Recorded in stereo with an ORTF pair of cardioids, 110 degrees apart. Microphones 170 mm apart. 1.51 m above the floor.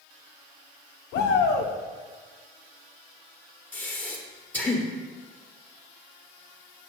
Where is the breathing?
10° left, 1.3 m.